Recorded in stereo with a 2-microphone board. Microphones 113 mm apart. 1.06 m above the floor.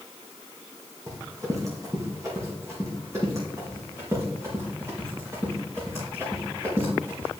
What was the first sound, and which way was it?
Running footsteps, 35° right (ahead or behind).